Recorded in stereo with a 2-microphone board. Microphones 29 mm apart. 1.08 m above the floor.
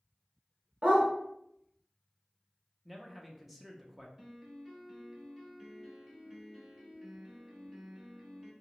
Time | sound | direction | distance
0.8 | a dog barking | 65° right (ahead or behind) | 1.5 m
2.9 | a man speaking | 5° right (ahead or behind) | 0.7 m
4.2 | a piano | 20° right (ahead or behind) | 0.9 m